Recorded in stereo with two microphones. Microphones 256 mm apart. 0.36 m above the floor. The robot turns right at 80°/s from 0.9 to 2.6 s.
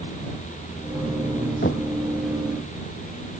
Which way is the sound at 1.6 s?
40° left (ahead or behind).